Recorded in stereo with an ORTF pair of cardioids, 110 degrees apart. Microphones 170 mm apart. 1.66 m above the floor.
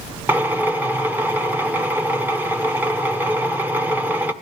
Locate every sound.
0.3 s a drill: 10° right, 1.0 m